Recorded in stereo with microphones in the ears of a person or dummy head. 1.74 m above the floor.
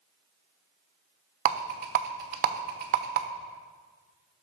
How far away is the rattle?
About 0.7 m.